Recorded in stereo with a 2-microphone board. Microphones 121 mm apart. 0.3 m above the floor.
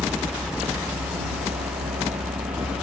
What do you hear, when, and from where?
0.0 s a helicopter: 70° right (ahead or behind)